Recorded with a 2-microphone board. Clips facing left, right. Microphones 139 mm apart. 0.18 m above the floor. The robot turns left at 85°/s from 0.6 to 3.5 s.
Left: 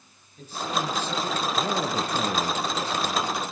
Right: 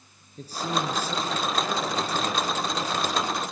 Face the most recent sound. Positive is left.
turn(degrees=-20)